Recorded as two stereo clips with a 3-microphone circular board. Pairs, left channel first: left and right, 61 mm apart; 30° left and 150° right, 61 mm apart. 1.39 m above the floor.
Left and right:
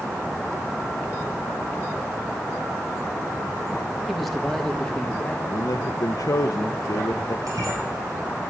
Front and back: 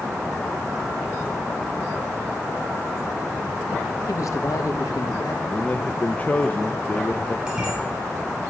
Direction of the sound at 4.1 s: 5° right.